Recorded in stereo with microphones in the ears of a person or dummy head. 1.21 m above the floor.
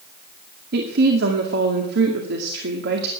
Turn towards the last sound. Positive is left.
turn(degrees=-60)  # may be behind; listen again after turning